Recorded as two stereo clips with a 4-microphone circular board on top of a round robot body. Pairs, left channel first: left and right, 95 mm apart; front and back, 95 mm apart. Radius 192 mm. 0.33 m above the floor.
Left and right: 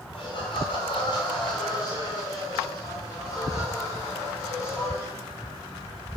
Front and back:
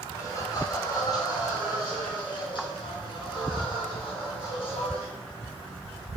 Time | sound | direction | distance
0.1 | laughter | 60° left | 2.5 m